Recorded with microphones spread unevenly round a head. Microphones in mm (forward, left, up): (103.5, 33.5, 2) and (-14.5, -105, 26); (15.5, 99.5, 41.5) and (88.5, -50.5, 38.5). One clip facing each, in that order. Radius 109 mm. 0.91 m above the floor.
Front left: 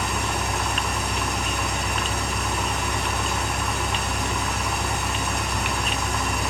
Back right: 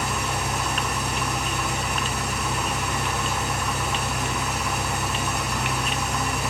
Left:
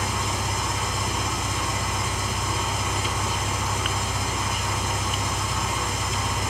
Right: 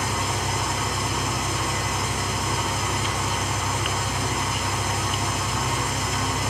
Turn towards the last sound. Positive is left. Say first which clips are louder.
# even, right 1 dB
turn(degrees=-45)